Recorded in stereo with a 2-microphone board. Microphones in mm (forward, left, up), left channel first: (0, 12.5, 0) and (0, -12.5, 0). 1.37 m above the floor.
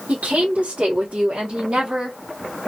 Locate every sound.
0.1 s a woman speaking: 85° right, 1.4 m; by 2.2 s 35° right (ahead or behind), 1.7 m